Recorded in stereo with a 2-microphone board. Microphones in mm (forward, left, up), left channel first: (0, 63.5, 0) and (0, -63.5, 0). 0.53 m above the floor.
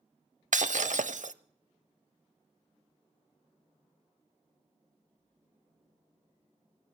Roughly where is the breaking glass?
Right.